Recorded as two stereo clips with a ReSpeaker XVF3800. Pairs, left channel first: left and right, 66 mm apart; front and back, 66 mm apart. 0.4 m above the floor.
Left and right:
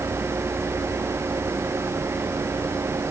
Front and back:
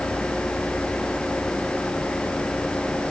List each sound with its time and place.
Only background noise.